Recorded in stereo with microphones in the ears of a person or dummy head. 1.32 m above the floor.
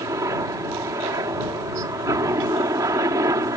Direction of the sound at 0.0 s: 15° right (ahead or behind).